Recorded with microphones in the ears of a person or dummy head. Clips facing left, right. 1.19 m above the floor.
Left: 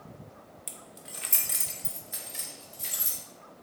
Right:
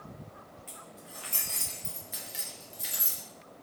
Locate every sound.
0.7 s keys jangling: 40° left (ahead or behind), 0.5 m; by 3.2 s 15° right (ahead or behind), 1.1 m